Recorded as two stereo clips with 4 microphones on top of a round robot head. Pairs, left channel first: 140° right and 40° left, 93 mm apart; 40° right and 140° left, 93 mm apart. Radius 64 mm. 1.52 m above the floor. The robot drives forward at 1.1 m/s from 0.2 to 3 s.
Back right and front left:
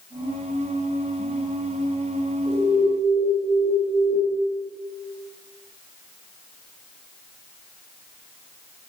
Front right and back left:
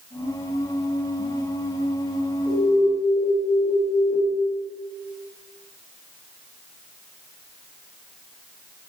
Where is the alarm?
40° left, 8.5 m.